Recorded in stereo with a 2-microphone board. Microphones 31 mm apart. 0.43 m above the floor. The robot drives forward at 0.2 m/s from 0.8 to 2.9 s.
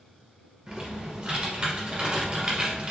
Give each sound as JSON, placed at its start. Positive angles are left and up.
{"t": 0.7, "sound": "typing on a keyboard", "side_deg": -25, "distance_m": 1.3}